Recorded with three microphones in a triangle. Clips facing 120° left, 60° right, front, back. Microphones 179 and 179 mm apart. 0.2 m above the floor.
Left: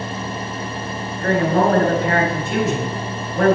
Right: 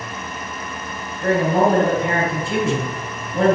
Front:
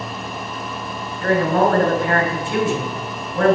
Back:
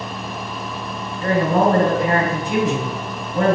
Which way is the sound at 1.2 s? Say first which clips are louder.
Even, even; 110° right.